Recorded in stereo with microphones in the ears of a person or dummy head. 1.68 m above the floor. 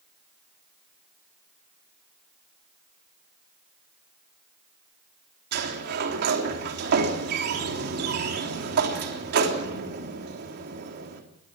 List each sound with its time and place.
5.5 s a sliding door: 55° right (ahead or behind), 3.5 m